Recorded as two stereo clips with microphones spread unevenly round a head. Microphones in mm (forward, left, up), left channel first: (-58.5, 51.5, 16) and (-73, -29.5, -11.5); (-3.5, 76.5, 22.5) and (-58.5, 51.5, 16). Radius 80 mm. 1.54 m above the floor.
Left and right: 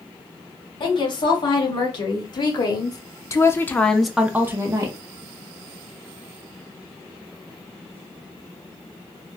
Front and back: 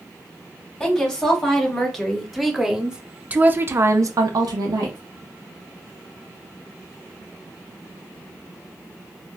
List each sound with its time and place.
0.8 s a woman speaking: 100° left, 2.0 m; by 5.0 s 145° right, 0.8 m